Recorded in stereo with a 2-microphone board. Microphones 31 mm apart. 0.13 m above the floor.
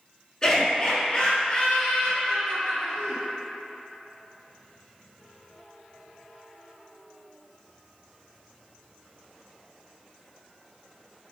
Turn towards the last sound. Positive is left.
turn(degrees=50)  # may be behind; listen again after turning